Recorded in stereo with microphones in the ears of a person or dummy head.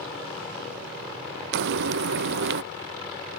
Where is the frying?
65° right (ahead or behind).